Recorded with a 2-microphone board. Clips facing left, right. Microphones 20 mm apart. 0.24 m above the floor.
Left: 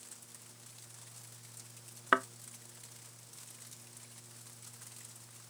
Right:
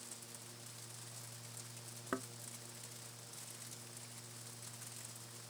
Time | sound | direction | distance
2.1 | a thud | 65° left (ahead or behind) | ?